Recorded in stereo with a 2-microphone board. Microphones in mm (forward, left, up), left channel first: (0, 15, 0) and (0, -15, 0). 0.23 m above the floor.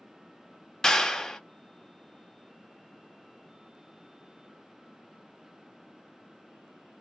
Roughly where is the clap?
Centre.